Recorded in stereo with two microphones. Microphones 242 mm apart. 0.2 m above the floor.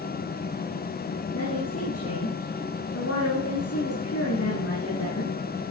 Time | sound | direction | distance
1.3 | a woman speaking | 75° left (ahead or behind) | 7 m